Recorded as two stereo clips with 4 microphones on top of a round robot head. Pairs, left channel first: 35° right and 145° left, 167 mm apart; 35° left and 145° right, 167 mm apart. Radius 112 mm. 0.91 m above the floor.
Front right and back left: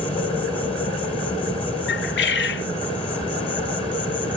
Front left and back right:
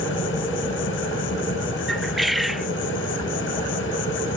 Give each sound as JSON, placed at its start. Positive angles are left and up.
{"t": 0.0, "sound": "an insect", "azimuth_deg": 25, "distance_m": 2.0}
{"t": 1.9, "sound": "a bird", "azimuth_deg": -55, "distance_m": 0.7}